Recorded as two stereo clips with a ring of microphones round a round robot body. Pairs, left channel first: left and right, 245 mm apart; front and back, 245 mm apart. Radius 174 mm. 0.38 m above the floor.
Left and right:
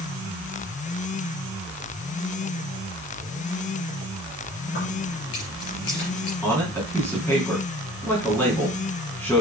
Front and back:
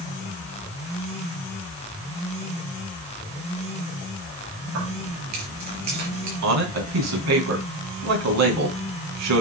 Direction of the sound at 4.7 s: 145° left.